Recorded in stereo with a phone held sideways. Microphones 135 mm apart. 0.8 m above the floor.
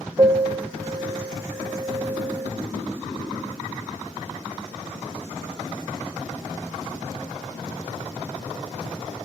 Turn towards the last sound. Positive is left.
turn(degrees=-35)  # may be behind; listen again after turning